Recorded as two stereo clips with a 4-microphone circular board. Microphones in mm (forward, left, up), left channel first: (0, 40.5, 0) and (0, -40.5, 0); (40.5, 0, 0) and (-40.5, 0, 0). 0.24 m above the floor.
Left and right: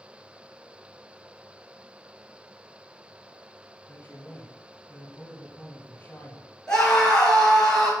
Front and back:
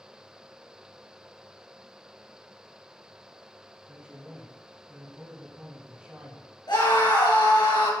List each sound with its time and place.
3.9 s a man speaking: 120° left, 1.6 m
6.7 s a scream: 10° left, 3 m